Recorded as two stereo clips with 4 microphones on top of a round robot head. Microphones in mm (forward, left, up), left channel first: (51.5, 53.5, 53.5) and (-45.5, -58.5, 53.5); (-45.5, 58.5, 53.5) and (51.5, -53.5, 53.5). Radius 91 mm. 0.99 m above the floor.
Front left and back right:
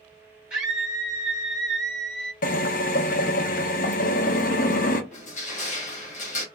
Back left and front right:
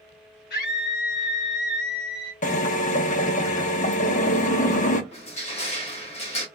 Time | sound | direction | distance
0.5 | a scream | 145° left | 1.1 m
2.4 | a drill | 85° left | 0.7 m
5.1 | crushing | 90° left | 1.9 m